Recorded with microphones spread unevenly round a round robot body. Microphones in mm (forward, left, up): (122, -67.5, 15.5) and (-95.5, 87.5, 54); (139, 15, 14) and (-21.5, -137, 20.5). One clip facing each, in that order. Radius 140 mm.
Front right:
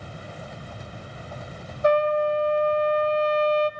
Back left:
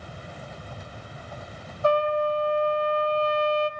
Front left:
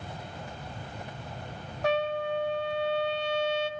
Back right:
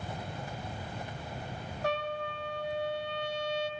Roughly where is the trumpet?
Ahead left.